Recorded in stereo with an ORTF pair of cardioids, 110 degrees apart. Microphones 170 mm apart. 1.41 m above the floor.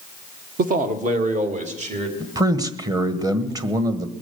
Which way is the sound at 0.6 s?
55° right.